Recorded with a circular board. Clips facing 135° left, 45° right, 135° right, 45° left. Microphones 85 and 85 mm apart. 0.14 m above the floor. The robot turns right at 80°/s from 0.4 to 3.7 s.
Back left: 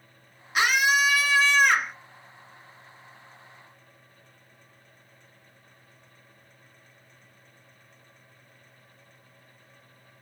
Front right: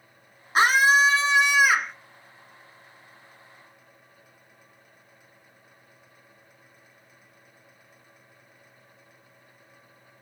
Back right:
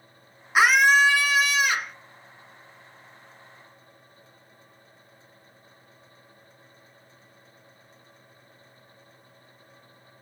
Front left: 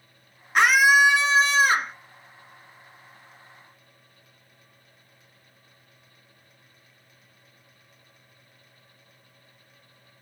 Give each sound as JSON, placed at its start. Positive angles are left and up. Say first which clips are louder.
{"t": 0.6, "sound": "a scream", "louder": "front right 4 dB, front left 1 dB", "azimuth_deg": -55, "distance_m": 1.2}